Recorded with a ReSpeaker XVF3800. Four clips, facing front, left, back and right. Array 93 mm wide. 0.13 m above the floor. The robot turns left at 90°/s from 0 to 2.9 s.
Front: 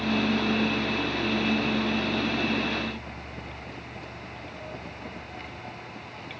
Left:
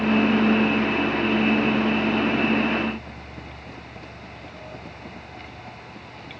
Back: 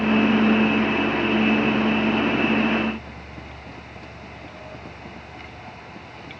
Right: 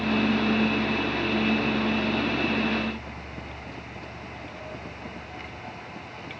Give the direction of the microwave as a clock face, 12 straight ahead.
No microwave in this recording.